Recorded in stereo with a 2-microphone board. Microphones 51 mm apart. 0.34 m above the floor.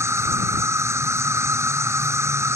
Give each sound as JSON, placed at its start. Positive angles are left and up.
{"t": 0.0, "sound": "an insect", "side_deg": -65}